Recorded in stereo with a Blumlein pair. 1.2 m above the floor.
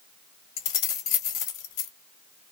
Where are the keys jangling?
45° left, 0.8 m.